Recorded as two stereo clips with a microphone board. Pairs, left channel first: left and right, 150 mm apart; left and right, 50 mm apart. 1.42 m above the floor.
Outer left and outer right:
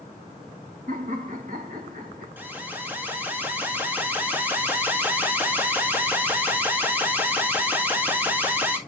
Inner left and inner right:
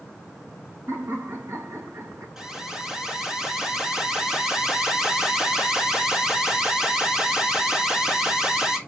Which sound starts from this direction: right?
Laughter, at 0.9 s.